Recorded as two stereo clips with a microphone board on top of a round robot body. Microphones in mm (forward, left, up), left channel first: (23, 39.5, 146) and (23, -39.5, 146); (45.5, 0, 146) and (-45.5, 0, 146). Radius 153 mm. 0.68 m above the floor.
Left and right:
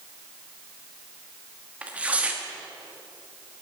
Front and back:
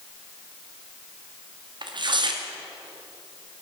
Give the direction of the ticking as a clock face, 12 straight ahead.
I don't hear ticking.